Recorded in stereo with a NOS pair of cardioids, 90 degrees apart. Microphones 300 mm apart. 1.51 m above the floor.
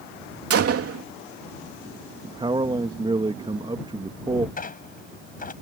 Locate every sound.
0.5 s a gunshot: 50° right
2.2 s a man speaking: 15° right
4.6 s a squeak: 30° left